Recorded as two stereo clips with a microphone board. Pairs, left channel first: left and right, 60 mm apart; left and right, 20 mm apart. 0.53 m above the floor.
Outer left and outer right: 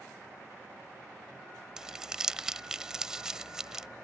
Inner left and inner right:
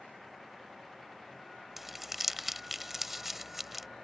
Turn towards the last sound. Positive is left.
turn(degrees=-10)  # may be behind; listen again after turning